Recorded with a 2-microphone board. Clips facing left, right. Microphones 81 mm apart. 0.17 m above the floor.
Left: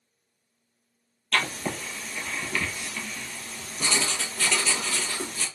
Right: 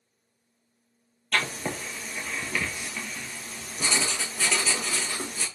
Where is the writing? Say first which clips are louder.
Left 1 dB; 10° right (ahead or behind), 1.1 m.